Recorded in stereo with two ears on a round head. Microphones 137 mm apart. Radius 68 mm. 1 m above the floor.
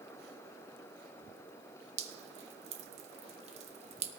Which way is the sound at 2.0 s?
45° right (ahead or behind).